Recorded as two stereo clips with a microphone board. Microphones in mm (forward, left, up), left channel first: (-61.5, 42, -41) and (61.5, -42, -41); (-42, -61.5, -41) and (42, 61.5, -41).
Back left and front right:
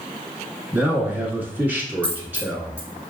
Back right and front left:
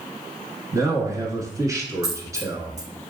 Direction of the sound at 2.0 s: 65° left.